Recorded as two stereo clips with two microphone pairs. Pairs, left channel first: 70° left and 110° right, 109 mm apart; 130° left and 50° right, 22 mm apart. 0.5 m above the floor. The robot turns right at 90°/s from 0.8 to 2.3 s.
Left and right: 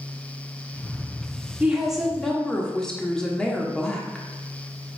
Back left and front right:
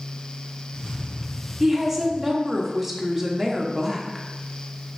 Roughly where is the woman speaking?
Ahead right.